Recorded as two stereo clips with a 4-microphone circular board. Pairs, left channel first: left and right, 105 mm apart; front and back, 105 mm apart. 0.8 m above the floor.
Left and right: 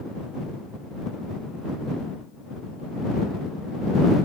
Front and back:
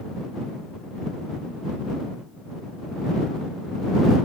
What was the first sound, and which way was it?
Only background noise.